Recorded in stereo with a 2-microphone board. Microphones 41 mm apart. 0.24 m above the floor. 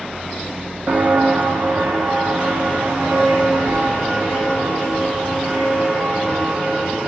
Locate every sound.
0.9 s footsteps: 50° right (ahead or behind), 0.6 m; by 7.1 s 85° right, 4 m